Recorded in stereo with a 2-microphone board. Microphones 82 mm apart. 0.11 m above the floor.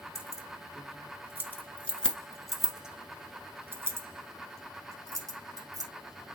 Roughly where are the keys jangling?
Left.